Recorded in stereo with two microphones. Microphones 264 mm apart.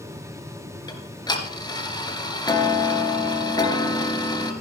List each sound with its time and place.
0.9 s ticking: 15° left (ahead or behind), 1.8 m